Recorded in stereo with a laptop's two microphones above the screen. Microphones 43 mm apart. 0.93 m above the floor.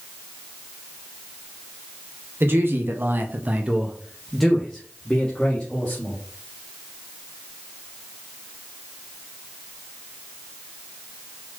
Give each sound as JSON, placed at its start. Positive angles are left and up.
{"t": 2.4, "sound": "a man speaking", "side_deg": -65, "distance_m": 1.3}